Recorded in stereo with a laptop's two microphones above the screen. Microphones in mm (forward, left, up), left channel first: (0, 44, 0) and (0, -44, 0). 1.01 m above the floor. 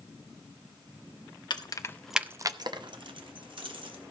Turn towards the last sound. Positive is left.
turn(degrees=-75)  # may be behind; listen again after turning